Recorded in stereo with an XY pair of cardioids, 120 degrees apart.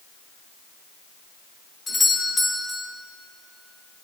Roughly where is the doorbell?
Ahead.